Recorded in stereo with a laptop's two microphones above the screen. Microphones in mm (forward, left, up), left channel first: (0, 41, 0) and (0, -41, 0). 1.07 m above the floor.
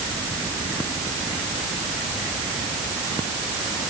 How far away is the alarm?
I don't hear an alarm.